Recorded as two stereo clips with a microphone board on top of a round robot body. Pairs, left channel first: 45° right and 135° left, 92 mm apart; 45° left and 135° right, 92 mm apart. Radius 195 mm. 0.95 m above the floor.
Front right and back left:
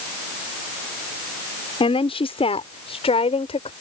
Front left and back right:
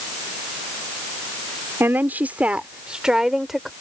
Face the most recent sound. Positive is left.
turn(degrees=-45)